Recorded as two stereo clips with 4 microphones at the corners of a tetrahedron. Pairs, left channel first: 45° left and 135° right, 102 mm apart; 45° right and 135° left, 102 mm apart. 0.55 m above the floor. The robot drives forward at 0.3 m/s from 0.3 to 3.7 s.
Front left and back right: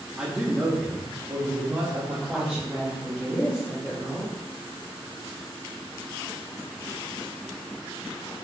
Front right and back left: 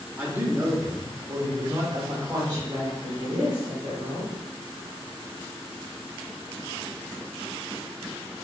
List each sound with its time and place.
0.2 s a man speaking: 160° left, 0.8 m; by 2.6 s 175° left, 1.2 m
2.3 s a woman speaking: 140° left, 1.2 m; by 4.3 s 150° left, 1.5 m